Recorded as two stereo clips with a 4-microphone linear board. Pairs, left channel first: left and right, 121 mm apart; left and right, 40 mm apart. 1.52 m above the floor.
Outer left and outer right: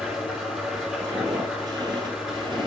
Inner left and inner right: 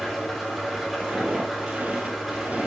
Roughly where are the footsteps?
Right.